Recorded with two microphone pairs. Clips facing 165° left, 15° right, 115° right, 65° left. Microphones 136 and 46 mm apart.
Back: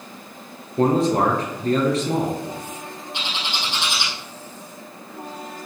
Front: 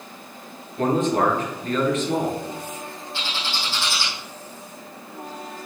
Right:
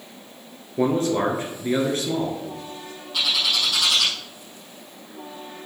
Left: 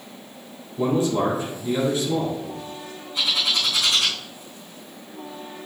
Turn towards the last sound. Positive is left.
turn(degrees=-120)